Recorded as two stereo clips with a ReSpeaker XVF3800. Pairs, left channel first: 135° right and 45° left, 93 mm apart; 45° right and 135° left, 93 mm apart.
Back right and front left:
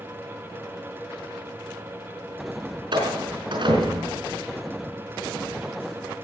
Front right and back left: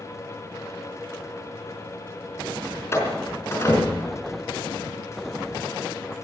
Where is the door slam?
15° left, 5 m.